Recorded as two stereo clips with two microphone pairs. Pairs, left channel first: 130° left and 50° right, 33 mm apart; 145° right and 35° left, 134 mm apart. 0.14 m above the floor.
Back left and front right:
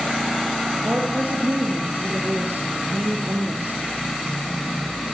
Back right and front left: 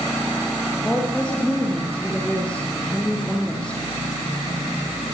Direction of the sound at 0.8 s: 60° right.